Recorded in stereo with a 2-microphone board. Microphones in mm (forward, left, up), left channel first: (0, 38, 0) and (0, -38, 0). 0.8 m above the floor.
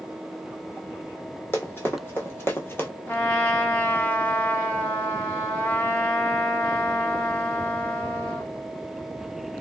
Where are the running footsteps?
30° left (ahead or behind), 1.4 m; by 2.9 s 25° left (ahead or behind), 0.8 m.